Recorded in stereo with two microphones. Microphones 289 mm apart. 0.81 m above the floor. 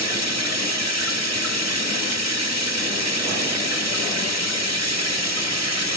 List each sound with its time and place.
0.0 s running water: 70° right (ahead or behind), 1.5 m